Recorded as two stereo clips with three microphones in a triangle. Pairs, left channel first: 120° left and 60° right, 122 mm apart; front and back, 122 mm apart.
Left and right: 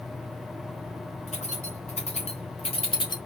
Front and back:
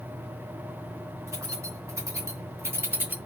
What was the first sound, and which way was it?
Keys jangling, 115° left.